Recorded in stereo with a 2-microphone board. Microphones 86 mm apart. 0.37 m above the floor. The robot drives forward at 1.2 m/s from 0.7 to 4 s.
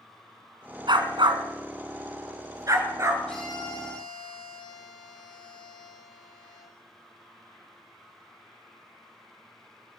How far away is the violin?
About 6 m.